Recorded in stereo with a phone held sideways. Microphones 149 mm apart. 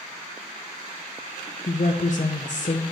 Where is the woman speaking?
55° left (ahead or behind), 0.7 m.